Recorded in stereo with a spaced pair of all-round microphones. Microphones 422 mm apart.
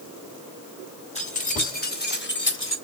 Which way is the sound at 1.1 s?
15° left (ahead or behind).